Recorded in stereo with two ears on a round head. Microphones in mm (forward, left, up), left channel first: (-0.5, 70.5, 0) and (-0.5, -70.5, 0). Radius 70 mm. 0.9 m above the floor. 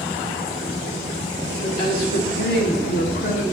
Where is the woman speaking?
55° left (ahead or behind), 3 m; by 3.4 s 50° left (ahead or behind), 1.7 m.